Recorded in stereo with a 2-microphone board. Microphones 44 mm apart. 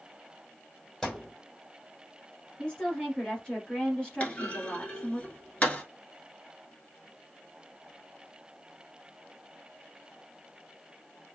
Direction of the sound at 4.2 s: 30° left (ahead or behind).